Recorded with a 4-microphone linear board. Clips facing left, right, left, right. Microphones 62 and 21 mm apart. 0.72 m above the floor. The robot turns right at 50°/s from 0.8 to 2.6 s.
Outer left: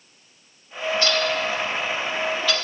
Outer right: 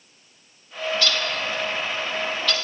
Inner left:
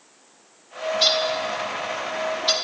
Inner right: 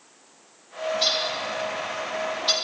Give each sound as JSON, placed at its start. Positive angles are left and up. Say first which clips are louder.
{"t": 0.9, "sound": "a bird", "louder": "outer left 4 dB, inner left 4 dB", "side_deg": 30, "distance_m": 0.7}